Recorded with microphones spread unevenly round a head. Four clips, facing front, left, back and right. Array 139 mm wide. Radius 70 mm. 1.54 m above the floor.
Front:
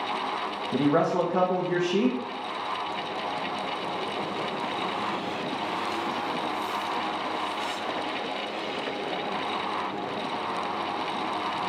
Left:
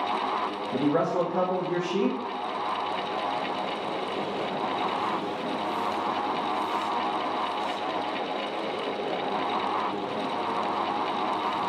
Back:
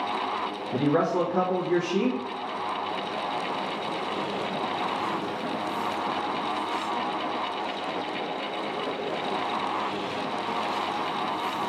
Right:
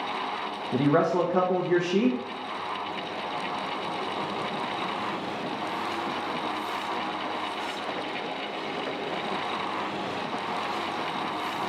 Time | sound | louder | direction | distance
0.7 | a man speaking | right 2 dB, front 1 dB | 45° right | 0.8 m